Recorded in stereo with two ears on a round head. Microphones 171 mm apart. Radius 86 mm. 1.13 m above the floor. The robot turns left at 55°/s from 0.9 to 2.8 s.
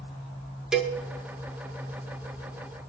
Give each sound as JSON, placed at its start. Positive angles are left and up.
{"t": 0.7, "sound": "a cowbell", "side_deg": -5, "distance_m": 1.7}